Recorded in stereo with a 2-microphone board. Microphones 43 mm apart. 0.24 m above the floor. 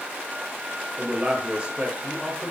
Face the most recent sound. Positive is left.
turn(degrees=-25)  # may be behind; listen again after turning